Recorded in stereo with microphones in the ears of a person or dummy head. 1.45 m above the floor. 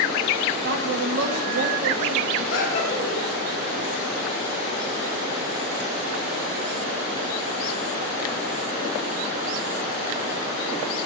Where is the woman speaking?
65° right (ahead or behind), 2.0 m.